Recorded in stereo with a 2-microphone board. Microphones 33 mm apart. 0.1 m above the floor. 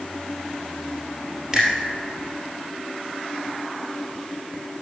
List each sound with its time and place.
1.5 s a finger snap: 20° right (ahead or behind), 2 m